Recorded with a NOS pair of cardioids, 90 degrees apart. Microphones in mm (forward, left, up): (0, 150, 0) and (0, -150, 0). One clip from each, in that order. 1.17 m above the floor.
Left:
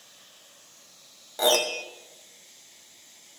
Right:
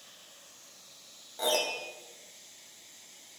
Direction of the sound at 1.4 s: 50° left.